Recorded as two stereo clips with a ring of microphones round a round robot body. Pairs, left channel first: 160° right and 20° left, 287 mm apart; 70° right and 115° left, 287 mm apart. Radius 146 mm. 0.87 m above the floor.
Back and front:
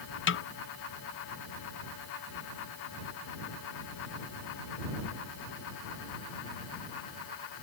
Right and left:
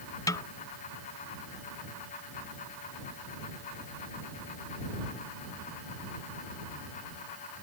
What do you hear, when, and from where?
0.3 s a snare drum: 140° right